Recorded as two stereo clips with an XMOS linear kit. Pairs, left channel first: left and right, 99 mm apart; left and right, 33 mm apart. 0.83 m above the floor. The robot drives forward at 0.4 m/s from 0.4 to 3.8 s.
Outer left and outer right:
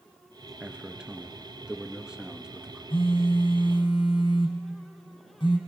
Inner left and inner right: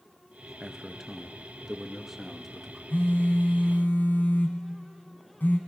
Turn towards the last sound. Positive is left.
turn(degrees=60)  # may be behind; listen again after turning